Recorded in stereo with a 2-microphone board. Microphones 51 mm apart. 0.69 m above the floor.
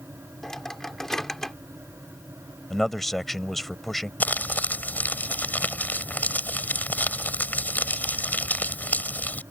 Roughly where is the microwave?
Centre.